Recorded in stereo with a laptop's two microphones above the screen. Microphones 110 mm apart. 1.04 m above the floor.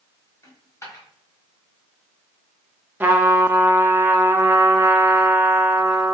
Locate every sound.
0.4 s a dropped coin: 30° left (ahead or behind), 1.3 m
3.0 s a trumpet: 20° right (ahead or behind), 0.6 m